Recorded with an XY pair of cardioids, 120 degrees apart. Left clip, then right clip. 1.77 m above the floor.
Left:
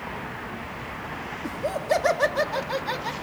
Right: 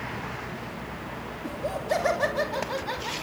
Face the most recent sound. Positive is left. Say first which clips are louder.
# left 3 dB
turn(degrees=20)